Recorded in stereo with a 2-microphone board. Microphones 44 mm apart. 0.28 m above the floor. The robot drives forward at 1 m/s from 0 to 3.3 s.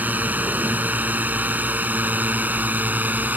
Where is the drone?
40° right (ahead or behind).